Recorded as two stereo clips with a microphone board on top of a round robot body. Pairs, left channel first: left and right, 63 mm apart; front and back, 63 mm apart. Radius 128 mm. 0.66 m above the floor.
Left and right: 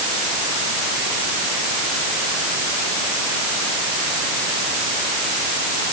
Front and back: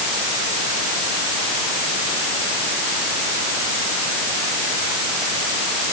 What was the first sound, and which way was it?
Only background noise.